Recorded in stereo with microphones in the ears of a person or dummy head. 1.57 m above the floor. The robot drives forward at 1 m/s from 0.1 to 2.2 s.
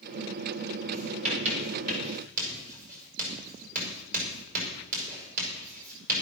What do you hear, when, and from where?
0.9 s writing: 40° right (ahead or behind), 6 m; by 6.2 s 50° right (ahead or behind), 5 m